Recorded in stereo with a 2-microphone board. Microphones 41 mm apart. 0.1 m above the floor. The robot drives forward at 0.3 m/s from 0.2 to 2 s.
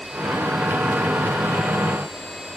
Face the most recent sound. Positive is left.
No sound to turn to.